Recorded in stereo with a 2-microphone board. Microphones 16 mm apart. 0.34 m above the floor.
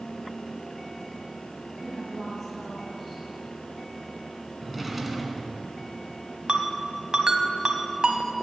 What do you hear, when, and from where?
1.8 s a woman speaking: 5° left (ahead or behind), 3 m
4.6 s a drawer: 5° right (ahead or behind), 1.8 m
6.5 s a ringtone: 55° right (ahead or behind), 1.4 m